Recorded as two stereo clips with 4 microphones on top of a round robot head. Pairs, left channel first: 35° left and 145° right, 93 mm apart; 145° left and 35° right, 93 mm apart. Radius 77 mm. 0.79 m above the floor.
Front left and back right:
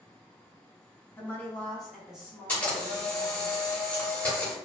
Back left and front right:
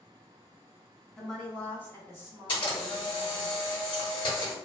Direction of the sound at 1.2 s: 65° left.